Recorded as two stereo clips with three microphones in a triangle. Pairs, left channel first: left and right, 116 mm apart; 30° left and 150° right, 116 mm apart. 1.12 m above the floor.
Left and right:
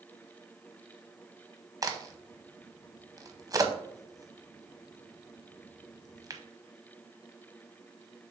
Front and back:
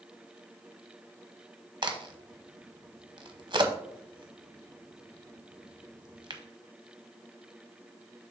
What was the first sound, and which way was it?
A crack, 135° right.